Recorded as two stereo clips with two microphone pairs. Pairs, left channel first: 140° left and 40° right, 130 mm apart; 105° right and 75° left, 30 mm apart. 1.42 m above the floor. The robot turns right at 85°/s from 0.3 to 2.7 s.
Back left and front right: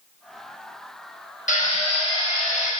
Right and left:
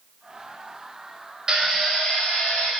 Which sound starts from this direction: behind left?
A drill, at 1.5 s.